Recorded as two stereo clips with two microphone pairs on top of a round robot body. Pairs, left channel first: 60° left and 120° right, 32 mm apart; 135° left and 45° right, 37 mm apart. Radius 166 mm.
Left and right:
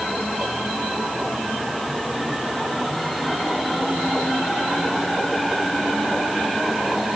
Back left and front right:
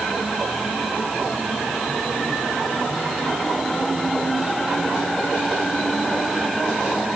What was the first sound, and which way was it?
Only background noise.